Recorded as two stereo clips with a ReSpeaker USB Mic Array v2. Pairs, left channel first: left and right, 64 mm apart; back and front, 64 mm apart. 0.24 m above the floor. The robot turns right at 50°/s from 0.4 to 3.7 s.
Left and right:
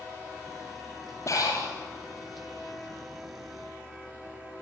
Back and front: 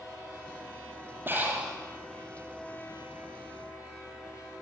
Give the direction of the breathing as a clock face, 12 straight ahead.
10 o'clock.